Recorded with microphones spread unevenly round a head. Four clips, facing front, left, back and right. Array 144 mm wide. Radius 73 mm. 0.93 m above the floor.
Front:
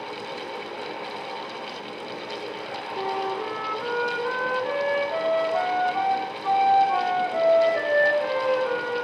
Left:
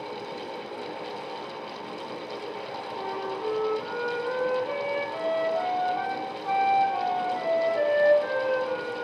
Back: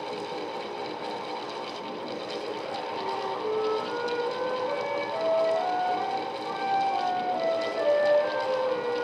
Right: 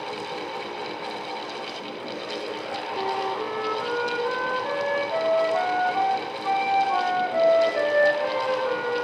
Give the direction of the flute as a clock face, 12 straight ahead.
1 o'clock.